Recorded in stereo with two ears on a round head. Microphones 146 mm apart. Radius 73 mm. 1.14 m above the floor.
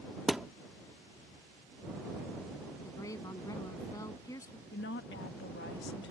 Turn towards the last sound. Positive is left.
turn(degrees=70)  # may be behind; listen again after turning